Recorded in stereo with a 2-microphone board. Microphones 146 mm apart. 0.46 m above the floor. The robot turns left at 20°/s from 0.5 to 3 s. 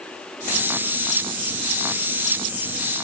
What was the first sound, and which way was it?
Only background noise.